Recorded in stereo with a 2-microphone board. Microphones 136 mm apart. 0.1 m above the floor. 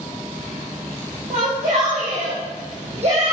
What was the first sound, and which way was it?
A shout, 50° right (ahead or behind).